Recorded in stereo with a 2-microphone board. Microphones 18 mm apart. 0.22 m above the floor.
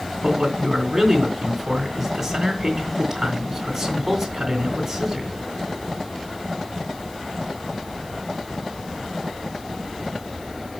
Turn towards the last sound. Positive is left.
turn(degrees=-10)  # may be behind; listen again after turning